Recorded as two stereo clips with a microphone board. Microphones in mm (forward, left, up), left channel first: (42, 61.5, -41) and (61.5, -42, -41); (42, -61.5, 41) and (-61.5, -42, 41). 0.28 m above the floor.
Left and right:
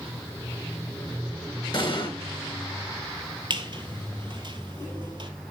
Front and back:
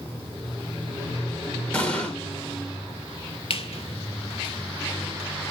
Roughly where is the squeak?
Ahead right.